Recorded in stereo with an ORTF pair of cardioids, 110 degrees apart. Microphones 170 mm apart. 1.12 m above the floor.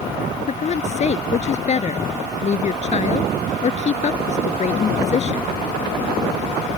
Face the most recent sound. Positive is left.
turn(degrees=40)